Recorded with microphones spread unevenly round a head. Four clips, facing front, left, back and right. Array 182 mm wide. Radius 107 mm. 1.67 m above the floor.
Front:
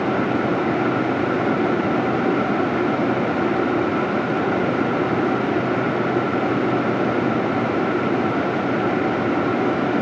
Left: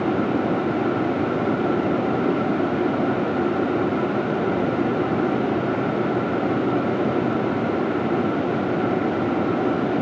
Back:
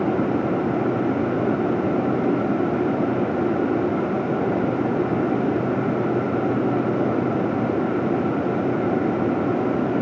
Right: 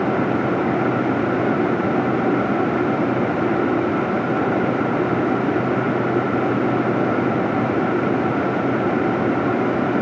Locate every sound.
Only background noise.